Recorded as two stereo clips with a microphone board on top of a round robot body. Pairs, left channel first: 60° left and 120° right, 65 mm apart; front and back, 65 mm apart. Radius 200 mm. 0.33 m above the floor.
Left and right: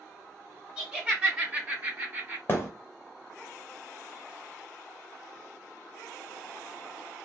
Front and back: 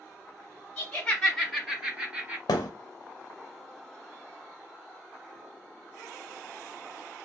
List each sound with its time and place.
0.8 s laughter: 45° right, 1.6 m; by 2.4 s 150° right, 1.6 m
2.5 s a thud: straight ahead, 0.6 m